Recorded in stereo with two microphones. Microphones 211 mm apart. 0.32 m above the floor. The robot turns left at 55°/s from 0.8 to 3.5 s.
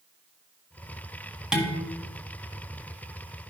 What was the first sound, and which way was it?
Dishes clattering, 5° right (ahead or behind).